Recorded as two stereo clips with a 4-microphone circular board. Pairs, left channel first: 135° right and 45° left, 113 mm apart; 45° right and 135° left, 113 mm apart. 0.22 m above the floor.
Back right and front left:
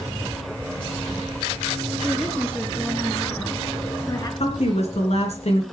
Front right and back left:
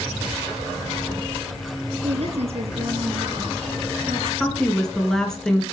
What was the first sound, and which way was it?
A woman speaking, 140° left.